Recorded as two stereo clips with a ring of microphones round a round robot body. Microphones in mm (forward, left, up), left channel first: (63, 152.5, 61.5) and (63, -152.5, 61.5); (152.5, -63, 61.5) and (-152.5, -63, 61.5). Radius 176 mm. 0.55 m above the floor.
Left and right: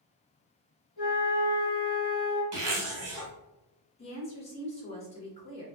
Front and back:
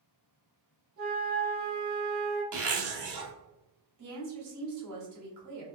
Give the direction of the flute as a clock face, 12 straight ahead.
8 o'clock.